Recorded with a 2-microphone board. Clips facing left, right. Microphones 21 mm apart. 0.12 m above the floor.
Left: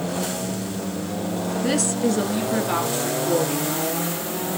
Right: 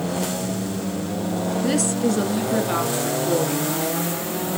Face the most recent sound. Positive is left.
turn(degrees=5)  # may be behind; listen again after turning